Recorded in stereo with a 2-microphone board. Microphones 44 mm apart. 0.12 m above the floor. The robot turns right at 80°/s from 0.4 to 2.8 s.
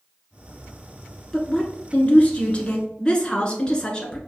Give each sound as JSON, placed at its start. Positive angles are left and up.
{"t": 1.3, "sound": "a woman speaking", "azimuth_deg": 20, "distance_m": 1.2}